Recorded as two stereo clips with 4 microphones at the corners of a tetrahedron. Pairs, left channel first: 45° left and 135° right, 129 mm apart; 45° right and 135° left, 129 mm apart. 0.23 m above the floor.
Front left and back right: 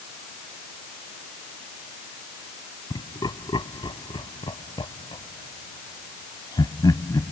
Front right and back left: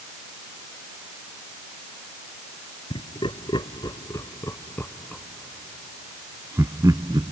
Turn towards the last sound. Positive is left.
turn(degrees=100)